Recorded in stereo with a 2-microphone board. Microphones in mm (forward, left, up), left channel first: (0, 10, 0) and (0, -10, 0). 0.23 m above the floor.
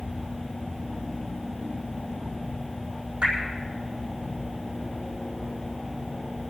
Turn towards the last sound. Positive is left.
turn(degrees=-65)  # may be behind; listen again after turning